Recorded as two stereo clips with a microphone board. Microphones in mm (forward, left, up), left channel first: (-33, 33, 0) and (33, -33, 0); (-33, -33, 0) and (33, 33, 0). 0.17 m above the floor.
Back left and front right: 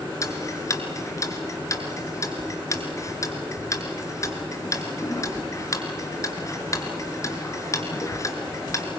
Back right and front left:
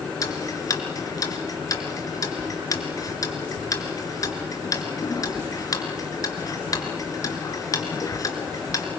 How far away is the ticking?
About 2.5 m.